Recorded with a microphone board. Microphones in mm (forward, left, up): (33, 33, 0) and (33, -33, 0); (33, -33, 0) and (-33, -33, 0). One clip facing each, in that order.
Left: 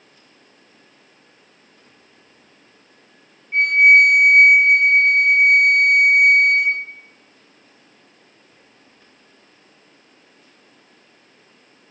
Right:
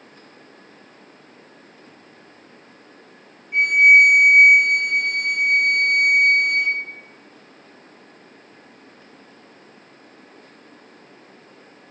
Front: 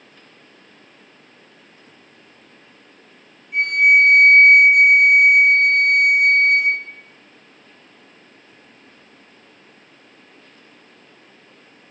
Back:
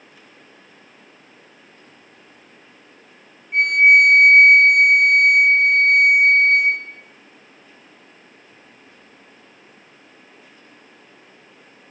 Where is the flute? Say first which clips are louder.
Left 1 dB, back 2 dB; 140° left, 3 m.